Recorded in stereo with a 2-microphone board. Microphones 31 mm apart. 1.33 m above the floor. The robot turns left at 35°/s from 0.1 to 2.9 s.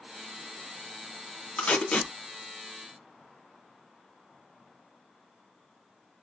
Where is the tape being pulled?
65° left (ahead or behind), 1.5 m; by 2.1 s 50° left (ahead or behind), 1.5 m.